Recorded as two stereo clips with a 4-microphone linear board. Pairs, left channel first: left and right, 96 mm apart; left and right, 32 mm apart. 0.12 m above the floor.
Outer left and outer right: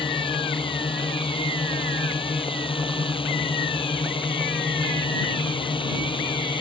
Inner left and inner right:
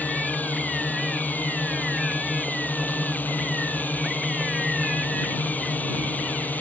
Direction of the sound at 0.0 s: 65° left (ahead or behind).